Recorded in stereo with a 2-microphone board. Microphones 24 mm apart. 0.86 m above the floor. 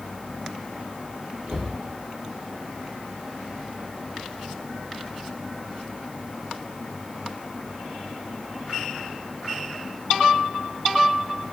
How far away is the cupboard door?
About 1.2 m.